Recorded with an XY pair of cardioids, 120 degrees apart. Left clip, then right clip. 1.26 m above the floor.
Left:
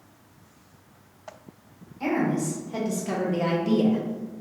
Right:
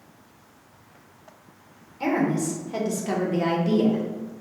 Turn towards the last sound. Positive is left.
turn(degrees=25)